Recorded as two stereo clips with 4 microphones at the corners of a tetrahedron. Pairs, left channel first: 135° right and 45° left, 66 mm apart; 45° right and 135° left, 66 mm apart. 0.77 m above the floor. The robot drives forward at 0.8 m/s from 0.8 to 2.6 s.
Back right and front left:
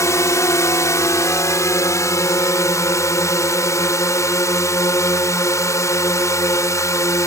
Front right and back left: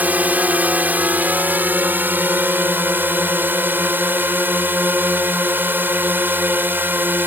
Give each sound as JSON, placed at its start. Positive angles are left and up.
{"t": 0.0, "sound": "a drone", "azimuth_deg": -165}